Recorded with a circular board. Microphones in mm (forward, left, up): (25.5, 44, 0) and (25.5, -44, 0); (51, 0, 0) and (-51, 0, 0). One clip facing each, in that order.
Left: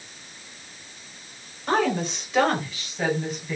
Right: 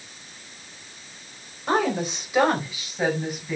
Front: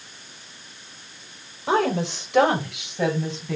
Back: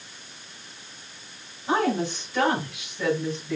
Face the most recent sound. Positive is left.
turn(degrees=-5)